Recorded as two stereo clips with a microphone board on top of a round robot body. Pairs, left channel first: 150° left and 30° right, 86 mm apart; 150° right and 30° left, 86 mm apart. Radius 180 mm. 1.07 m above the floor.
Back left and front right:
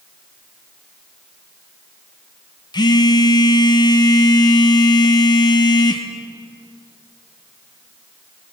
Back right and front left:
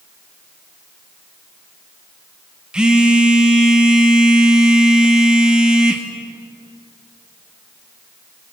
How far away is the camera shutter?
No camera shutter in this recording.